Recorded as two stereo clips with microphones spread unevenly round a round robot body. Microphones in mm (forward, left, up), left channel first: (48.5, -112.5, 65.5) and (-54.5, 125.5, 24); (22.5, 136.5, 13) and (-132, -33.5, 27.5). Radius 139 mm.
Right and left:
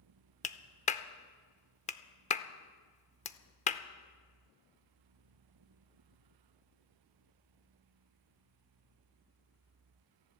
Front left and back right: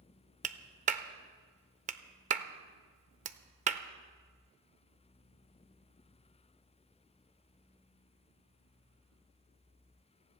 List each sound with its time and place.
0.4 s a clap: 120° right, 0.7 m